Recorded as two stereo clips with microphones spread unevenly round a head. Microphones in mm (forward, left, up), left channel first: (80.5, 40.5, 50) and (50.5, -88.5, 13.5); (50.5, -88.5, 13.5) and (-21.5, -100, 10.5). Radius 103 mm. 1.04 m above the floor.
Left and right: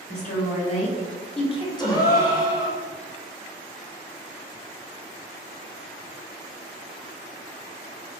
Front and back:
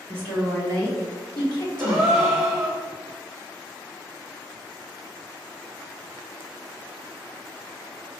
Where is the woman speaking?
45° left, 1.6 m; by 2.1 s 10° right, 0.7 m.